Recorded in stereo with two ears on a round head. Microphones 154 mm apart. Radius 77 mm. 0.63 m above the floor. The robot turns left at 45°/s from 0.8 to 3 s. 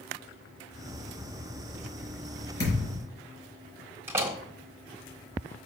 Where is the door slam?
15° right (ahead or behind), 1.4 m.